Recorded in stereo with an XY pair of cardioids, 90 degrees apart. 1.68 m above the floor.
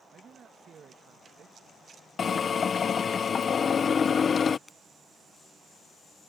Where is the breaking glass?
25° left.